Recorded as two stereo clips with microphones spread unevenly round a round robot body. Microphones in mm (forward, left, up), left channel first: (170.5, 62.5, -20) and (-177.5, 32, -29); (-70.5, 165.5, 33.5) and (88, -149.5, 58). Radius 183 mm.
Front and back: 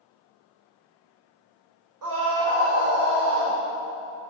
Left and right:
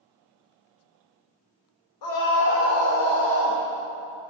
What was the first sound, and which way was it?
A scream, 145° left.